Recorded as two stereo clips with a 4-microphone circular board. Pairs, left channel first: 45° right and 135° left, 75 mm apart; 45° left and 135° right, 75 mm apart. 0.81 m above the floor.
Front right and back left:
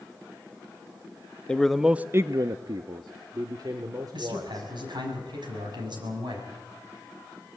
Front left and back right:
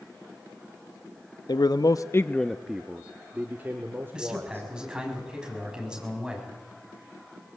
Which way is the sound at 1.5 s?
30° left.